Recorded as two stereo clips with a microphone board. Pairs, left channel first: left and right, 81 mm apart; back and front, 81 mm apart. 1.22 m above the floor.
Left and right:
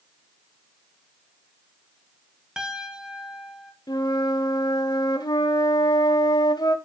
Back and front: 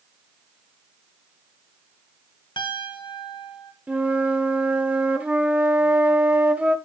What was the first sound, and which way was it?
A piano, 170° right.